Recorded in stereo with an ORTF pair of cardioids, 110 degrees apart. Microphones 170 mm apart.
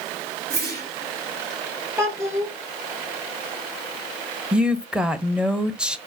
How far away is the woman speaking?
About 0.8 m.